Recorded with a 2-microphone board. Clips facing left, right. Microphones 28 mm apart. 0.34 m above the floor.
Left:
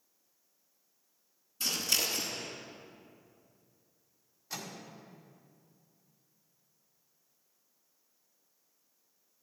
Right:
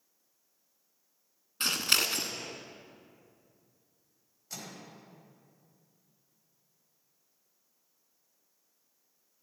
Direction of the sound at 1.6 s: 60° right (ahead or behind).